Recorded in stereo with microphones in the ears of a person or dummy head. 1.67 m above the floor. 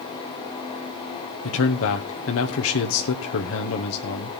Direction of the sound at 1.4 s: 80° left.